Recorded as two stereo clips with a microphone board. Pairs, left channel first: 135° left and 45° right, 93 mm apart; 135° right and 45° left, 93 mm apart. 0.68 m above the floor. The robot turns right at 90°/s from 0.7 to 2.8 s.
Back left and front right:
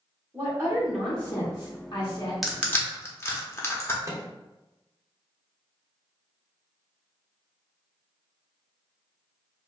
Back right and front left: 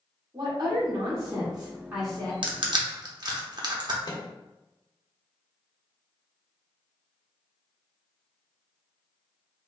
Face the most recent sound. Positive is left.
turn(degrees=-100)